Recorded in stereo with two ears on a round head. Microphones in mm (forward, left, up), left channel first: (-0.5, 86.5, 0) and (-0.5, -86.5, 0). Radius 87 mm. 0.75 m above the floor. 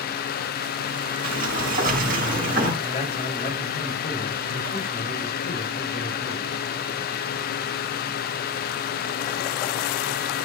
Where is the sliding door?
45° right (ahead or behind), 5.5 m.